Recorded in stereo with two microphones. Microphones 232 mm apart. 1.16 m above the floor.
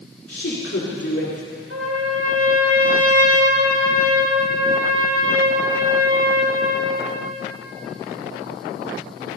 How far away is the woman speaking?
About 3.5 m.